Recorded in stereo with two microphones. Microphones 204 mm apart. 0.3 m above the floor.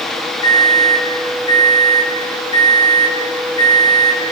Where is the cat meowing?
No cat meowing in this recording.